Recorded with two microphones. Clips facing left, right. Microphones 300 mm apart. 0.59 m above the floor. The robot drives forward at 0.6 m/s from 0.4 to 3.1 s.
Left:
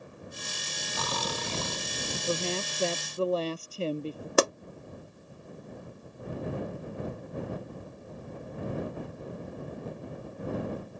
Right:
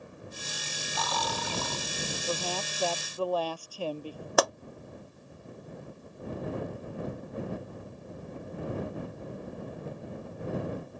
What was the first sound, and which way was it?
Snoring, 35° left (ahead or behind).